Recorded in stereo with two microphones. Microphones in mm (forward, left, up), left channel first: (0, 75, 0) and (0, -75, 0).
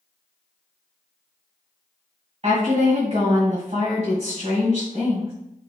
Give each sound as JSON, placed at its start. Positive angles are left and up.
{"t": 2.4, "sound": "a woman speaking", "side_deg": -45, "distance_m": 1.8}